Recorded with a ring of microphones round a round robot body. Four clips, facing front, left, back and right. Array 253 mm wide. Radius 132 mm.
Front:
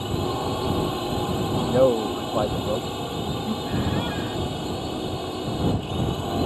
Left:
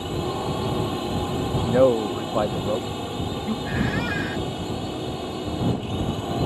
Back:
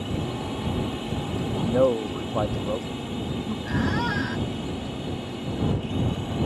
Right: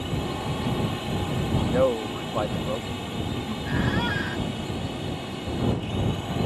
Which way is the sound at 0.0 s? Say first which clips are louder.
Left 3 dB, front 4 dB; 45° left.